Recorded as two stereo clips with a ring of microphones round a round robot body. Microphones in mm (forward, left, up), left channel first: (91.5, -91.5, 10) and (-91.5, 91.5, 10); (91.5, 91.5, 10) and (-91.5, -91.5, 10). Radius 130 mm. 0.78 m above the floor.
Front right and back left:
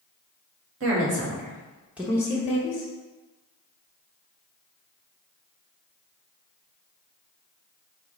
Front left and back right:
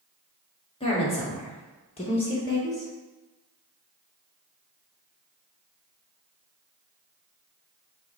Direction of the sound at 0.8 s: 110° left.